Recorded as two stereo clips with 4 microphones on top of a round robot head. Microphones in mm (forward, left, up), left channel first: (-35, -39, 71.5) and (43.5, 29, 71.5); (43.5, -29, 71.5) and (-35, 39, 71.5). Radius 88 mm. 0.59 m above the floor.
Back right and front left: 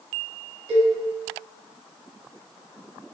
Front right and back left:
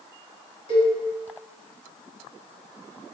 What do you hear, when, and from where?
0.7 s a cowbell: straight ahead, 1.0 m